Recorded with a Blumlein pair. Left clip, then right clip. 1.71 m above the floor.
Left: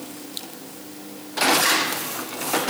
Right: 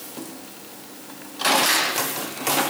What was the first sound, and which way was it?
Only background noise.